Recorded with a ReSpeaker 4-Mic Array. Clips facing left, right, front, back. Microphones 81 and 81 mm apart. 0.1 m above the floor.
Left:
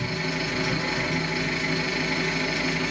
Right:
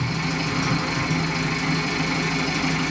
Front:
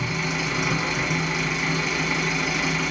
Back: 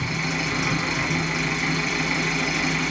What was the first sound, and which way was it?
An engine running, 90° right.